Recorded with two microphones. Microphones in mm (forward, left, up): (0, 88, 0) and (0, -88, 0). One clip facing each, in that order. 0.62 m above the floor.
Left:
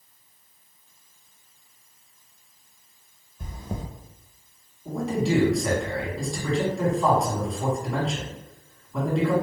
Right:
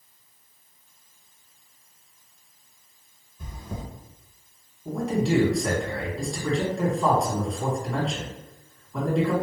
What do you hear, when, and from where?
3.4 s chewing: 50° left (ahead or behind), 0.6 m
4.8 s a man speaking: 5° left (ahead or behind), 1.3 m